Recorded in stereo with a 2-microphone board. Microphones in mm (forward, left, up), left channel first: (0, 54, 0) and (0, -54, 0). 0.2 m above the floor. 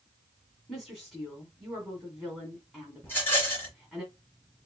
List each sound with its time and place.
0.7 s a woman speaking: centre (ahead or behind), 1.9 m
3.0 s a rattle: 20° left (ahead or behind), 2 m